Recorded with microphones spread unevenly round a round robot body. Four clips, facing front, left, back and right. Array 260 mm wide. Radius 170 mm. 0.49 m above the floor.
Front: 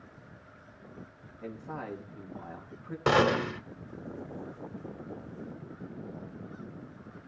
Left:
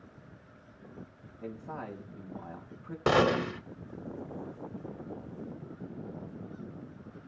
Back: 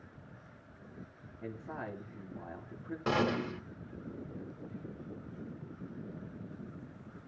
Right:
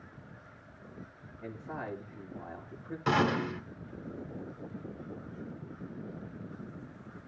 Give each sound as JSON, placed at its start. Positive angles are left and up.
{"t": 1.4, "sound": "a man speaking", "azimuth_deg": 120, "distance_m": 4.0}
{"t": 3.1, "sound": "a gunshot", "azimuth_deg": 65, "distance_m": 1.9}